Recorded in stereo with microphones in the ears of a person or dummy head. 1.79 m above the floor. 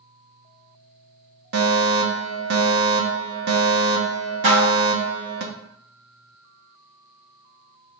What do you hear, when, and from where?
1.5 s a fire alarm: 55° right (ahead or behind), 1.0 m
4.4 s dishes clattering: 40° right (ahead or behind), 1.1 m